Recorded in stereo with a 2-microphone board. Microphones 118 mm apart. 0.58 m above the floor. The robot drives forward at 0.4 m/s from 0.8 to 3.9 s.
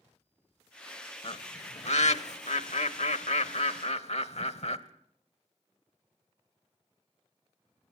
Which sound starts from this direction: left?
A bird, at 1.2 s.